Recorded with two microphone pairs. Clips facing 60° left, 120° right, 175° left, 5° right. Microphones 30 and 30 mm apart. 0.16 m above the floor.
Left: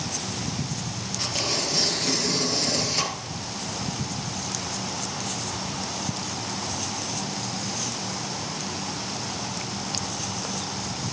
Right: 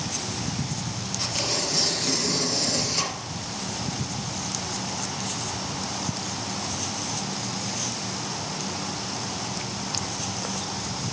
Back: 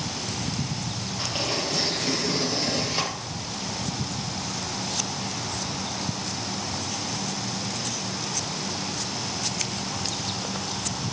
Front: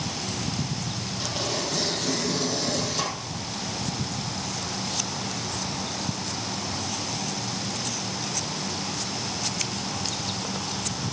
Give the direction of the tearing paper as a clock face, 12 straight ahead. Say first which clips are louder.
Left 1 dB, back 2 dB; 7 o'clock.